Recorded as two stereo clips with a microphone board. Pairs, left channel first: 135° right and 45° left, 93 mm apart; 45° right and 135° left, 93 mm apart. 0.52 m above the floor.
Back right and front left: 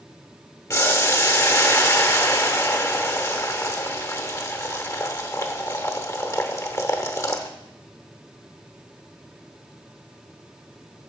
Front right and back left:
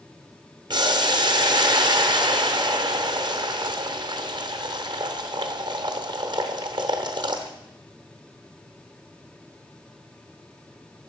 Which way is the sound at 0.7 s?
170° left.